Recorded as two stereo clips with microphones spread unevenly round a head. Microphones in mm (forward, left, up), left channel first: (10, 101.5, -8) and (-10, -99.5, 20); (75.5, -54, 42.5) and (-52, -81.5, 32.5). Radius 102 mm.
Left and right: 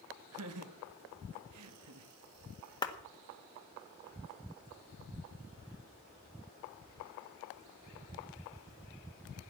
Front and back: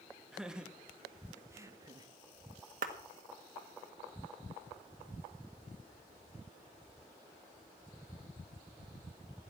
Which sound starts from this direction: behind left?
A clap, at 2.8 s.